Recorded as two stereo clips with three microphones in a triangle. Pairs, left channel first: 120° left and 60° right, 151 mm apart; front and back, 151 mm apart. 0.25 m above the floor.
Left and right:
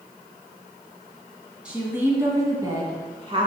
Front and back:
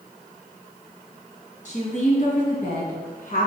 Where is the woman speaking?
20° left, 1.8 m; by 3.5 s 10° right, 2 m.